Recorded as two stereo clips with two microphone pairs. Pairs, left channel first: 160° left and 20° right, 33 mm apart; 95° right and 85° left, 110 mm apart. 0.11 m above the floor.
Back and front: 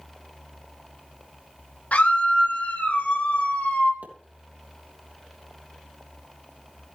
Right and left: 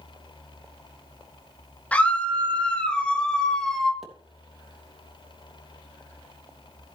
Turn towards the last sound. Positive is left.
turn(degrees=-5)